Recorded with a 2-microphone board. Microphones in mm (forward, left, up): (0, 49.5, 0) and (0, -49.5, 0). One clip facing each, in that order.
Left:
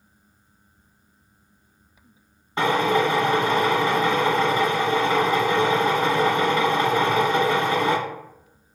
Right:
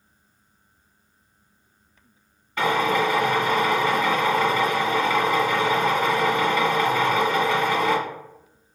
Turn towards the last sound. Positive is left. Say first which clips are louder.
# left 1 dB
turn(degrees=30)  # may be behind; listen again after turning